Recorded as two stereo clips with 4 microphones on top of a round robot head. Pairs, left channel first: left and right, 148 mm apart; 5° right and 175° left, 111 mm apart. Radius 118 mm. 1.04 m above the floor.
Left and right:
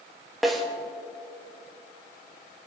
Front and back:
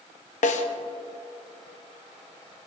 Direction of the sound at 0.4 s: Straight ahead.